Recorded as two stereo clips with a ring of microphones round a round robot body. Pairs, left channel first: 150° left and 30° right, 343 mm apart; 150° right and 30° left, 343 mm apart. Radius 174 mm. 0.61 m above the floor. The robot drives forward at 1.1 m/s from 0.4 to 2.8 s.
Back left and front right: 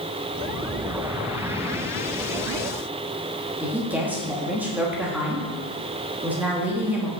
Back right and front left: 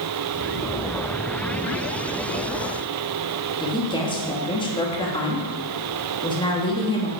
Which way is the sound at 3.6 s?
105° right.